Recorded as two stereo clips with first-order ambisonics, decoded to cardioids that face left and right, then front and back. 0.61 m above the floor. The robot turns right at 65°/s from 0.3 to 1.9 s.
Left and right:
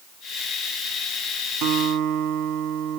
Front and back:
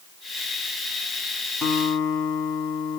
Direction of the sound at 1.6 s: 80° right.